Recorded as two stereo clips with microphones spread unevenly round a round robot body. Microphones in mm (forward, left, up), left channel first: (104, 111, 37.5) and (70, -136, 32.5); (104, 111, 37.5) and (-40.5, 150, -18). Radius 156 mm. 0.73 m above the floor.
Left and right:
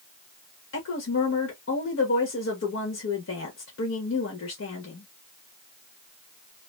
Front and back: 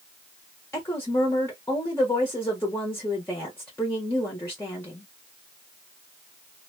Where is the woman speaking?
75° left, 1.4 m.